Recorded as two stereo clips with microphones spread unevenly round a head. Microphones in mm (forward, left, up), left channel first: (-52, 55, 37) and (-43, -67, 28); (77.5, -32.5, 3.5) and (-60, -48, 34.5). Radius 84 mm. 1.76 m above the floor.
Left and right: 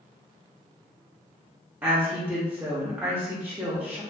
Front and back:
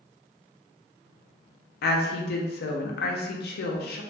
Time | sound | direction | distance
1.8 | a woman speaking | 5° right | 0.5 m